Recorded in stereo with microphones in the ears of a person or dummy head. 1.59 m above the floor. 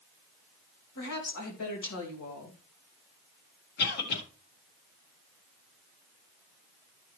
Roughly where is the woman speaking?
Left.